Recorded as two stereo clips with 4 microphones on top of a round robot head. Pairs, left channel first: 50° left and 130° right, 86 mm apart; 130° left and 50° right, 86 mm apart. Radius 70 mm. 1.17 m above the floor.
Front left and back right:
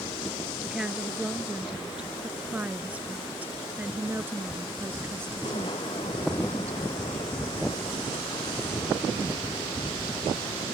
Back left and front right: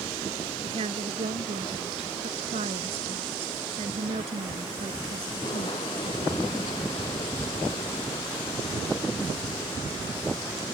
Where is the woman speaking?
45° right; by 6.9 s 70° right.